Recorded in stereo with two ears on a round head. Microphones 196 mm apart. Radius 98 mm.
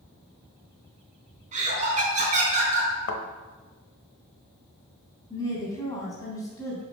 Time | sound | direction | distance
1.5 | laughter | 35° right (ahead or behind) | 3.5 m
3.1 | a thud | 70° left (ahead or behind) | 1.0 m
5.3 | a woman speaking | 15° left (ahead or behind) | 3.5 m